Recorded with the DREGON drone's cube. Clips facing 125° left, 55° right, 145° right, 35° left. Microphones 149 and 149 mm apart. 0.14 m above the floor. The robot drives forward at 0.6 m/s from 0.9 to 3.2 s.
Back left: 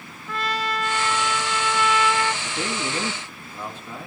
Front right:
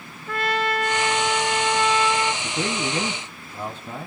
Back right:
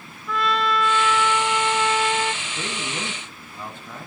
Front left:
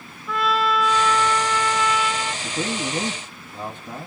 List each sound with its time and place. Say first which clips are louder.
0.3 s a trumpet: front right 3 dB, front left 1 dB; 50° right, 0.9 m; by 2.3 s 120° right, 0.8 m
2.4 s a man speaking: front right 2 dB, front left 5 dB; 10° right, 2 m; by 4.1 s 15° right, 1.8 m